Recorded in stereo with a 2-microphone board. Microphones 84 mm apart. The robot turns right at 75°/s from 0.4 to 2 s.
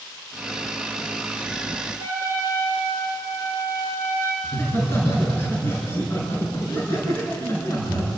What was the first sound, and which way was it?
A trumpet, 35° left (ahead or behind).